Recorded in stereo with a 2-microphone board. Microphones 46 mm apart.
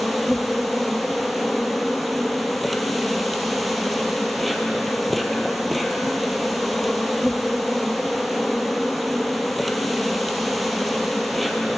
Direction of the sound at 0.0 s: Centre (ahead or behind).